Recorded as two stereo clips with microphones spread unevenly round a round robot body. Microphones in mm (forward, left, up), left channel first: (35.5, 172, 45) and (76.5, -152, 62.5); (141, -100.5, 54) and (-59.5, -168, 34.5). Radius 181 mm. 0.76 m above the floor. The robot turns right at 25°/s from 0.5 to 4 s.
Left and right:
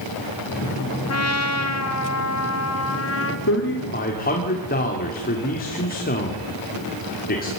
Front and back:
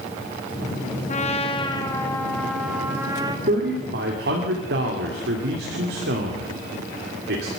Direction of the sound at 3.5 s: 145° left.